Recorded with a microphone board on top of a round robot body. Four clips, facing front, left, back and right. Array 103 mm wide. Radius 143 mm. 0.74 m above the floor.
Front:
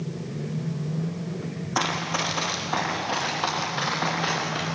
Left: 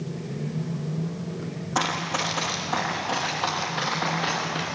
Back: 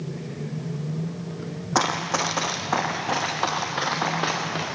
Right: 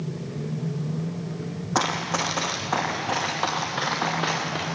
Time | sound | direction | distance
1.8 | running footsteps | 145° right | 3 m